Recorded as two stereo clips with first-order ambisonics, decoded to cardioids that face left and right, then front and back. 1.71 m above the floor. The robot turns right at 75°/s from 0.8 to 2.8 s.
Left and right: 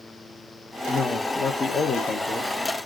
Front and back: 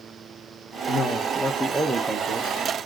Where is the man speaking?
30° left, 0.5 m; by 2.5 s 150° left, 0.5 m.